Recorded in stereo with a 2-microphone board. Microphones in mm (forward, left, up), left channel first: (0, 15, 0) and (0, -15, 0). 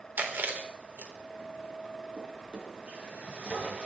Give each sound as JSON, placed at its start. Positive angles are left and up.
{"t": 0.2, "sound": "chewing", "side_deg": -75, "distance_m": 3.5}
{"t": 2.2, "sound": "a drawer", "side_deg": -40, "distance_m": 5.5}